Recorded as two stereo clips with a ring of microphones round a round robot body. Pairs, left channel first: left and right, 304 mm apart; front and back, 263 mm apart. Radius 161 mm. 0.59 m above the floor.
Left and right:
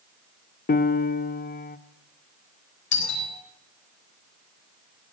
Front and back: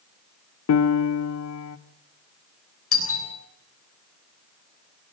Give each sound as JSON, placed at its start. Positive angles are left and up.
{"t": 0.7, "sound": "a piano", "azimuth_deg": 30, "distance_m": 0.9}
{"t": 2.9, "sound": "a doorbell", "azimuth_deg": 35, "distance_m": 9.0}